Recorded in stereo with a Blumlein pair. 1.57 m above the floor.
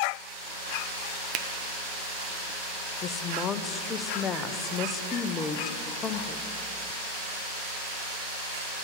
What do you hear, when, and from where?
1.3 s a finger snap: 35° right, 0.7 m
3.0 s a woman speaking: 25° left, 0.6 m